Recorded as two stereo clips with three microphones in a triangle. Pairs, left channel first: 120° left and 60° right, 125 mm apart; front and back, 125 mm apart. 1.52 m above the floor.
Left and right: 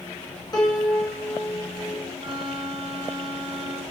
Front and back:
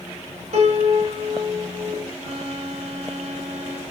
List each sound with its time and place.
0.5 s a piano: 170° left, 2.5 m
2.2 s a violin: 170° left, 3 m